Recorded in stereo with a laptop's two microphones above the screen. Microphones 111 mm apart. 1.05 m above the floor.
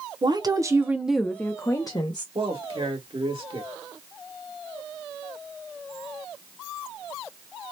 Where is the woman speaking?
45° right (ahead or behind), 0.7 m; by 2.2 s 45° left (ahead or behind), 0.7 m.